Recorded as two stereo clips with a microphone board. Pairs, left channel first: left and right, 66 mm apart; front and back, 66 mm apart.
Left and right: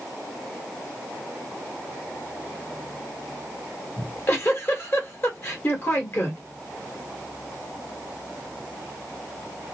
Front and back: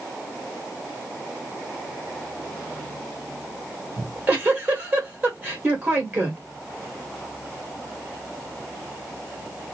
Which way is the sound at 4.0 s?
125° left.